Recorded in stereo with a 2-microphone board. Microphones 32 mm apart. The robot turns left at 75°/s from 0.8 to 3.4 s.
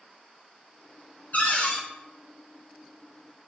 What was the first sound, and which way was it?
A cupboard door, 100° left.